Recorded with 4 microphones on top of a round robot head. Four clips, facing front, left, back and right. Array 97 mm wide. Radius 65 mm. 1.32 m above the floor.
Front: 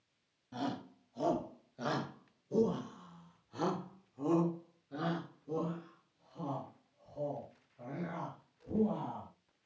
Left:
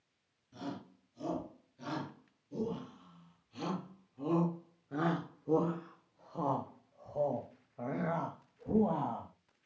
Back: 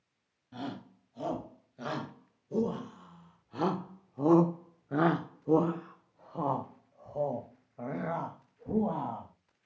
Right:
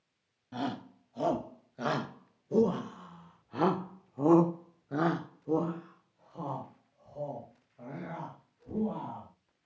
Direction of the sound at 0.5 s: 80° right.